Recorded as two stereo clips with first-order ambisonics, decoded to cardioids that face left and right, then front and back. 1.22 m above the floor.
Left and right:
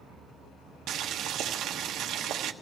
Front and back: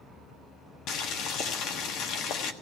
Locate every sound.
0.9 s boiling: 40° right, 1.3 m